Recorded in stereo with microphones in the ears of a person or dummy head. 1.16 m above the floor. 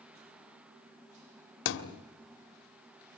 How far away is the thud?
About 1.2 m.